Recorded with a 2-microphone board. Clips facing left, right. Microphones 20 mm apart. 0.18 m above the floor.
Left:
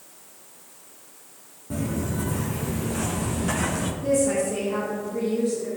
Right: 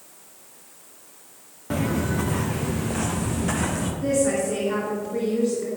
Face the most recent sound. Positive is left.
turn(degrees=-45)  # may be behind; listen again after turning